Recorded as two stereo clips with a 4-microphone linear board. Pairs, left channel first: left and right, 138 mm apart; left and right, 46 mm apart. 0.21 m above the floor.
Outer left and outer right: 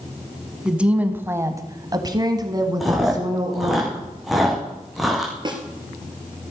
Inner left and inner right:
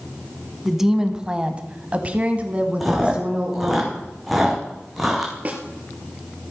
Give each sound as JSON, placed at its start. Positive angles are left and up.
{"t": 0.7, "sound": "a woman speaking", "side_deg": -5, "distance_m": 1.5}
{"t": 2.8, "sound": "chewing", "side_deg": 0, "distance_m": 3.0}
{"t": 5.5, "sound": "a snare drum", "side_deg": -35, "distance_m": 2.0}